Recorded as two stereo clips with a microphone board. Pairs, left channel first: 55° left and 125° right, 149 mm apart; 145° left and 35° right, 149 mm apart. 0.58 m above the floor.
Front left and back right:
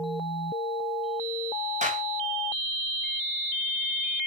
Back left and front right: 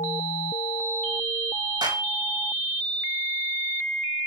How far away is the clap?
About 3 m.